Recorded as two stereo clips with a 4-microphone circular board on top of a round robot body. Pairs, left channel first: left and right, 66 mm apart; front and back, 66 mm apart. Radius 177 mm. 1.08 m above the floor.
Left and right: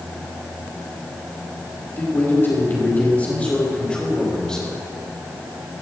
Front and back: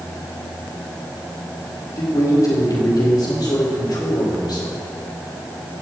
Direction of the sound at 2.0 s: 35° left.